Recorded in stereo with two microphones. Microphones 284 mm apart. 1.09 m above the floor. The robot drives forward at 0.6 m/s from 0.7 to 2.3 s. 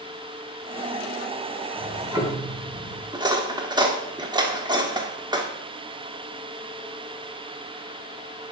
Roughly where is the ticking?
Centre.